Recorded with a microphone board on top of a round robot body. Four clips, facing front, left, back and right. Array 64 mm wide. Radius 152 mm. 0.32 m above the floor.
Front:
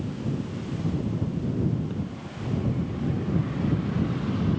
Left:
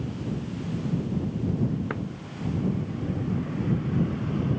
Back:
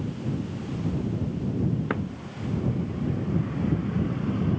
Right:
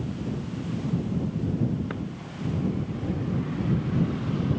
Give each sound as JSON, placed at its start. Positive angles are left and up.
{"t": 1.9, "sound": "a drawer", "azimuth_deg": 170}